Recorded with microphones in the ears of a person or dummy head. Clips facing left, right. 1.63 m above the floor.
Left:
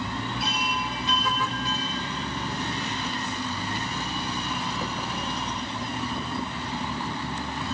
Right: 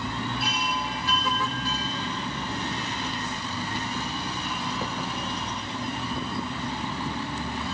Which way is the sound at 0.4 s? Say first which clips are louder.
Even; 20° left (ahead or behind).